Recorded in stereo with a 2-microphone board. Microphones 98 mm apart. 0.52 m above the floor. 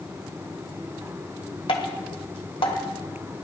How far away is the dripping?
About 1.2 m.